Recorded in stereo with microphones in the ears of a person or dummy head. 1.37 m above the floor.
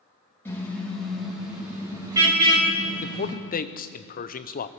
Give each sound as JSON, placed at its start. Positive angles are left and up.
{"t": 0.5, "sound": "a car horn", "side_deg": 10, "distance_m": 4.0}
{"t": 3.0, "sound": "a man speaking", "side_deg": 45, "distance_m": 0.6}